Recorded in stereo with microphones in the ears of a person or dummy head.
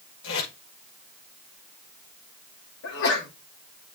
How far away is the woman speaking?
No woman speaking in this recording.